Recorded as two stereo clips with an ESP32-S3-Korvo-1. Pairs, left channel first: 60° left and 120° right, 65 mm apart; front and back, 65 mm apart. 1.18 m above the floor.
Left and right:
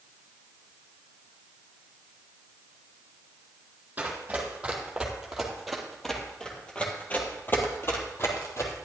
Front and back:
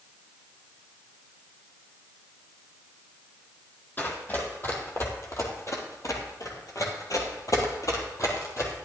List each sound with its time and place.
4.0 s running footsteps: 55° right, 2.5 m; by 8.7 s 30° left, 2.5 m